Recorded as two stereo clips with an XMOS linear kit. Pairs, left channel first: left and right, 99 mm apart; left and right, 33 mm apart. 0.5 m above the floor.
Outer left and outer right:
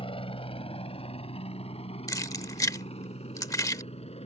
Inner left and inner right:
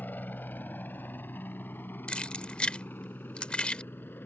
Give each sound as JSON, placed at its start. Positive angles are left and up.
{"t": 0.0, "sound": "a helicopter", "side_deg": 60}
{"t": 2.1, "sound": "keys jangling", "side_deg": 35}